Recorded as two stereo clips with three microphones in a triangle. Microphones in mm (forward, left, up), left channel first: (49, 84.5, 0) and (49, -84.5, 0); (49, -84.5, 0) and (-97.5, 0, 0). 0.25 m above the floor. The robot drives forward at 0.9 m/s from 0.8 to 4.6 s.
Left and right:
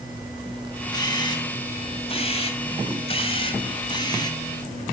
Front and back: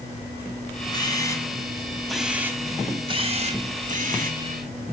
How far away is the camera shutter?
About 2 m.